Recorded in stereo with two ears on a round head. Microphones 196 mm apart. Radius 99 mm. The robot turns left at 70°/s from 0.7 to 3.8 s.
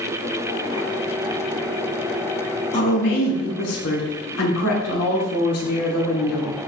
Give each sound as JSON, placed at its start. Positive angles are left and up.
{"t": 2.7, "sound": "a woman speaking", "azimuth_deg": 145, "distance_m": 3.0}